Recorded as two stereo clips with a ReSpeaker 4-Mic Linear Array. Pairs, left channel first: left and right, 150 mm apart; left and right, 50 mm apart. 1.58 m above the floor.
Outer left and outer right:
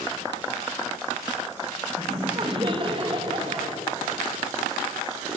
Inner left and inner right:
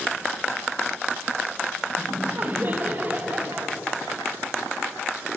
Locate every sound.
2.0 s laughter: 35° right (ahead or behind), 3 m